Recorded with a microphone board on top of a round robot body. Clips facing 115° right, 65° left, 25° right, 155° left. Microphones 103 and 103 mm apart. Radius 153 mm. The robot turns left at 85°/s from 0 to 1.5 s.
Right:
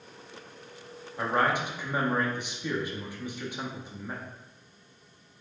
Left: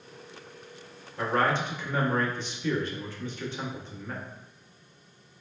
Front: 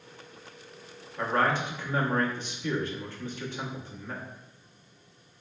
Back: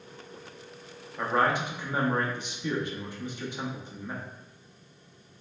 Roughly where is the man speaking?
Behind right.